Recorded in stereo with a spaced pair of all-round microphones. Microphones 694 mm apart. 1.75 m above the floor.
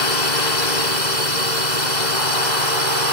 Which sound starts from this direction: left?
A drone, at 0.0 s.